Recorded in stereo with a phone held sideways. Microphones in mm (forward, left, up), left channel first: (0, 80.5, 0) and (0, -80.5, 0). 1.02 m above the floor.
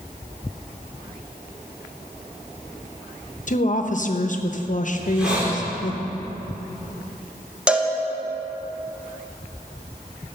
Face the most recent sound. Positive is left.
turn(degrees=-5)  # may be behind; listen again after turning